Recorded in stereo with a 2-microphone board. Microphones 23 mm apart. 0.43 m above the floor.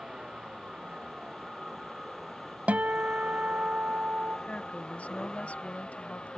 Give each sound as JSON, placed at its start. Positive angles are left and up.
{"t": 0.0, "sound": "a vehicle", "side_deg": -25}
{"t": 2.7, "sound": "a guitar", "side_deg": -85}
{"t": 4.5, "sound": "a woman speaking", "side_deg": 70}